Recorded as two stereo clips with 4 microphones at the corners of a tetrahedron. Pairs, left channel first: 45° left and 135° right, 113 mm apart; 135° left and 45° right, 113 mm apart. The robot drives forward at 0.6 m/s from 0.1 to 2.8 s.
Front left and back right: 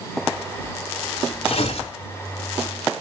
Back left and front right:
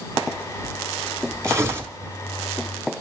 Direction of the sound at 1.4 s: 20° left.